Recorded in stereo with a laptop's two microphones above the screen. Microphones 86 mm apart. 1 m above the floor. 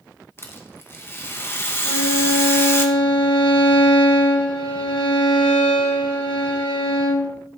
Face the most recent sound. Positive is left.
turn(degrees=85)